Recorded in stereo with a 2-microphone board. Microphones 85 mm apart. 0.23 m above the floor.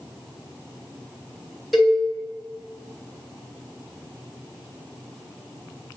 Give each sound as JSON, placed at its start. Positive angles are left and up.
{"t": 1.7, "sound": "a cowbell", "side_deg": 0, "distance_m": 0.9}